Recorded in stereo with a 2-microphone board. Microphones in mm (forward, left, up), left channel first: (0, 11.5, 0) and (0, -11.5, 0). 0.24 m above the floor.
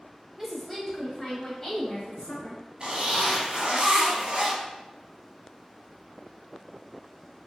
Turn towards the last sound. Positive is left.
turn(degrees=-45)  # may be behind; listen again after turning